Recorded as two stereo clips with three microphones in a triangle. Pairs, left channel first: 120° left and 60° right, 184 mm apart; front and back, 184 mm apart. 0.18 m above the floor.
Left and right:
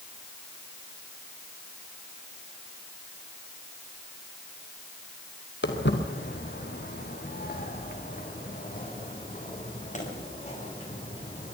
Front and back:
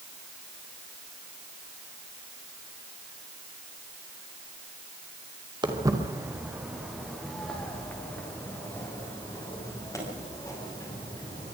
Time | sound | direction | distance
5.6 | footsteps | 110° left | 3 m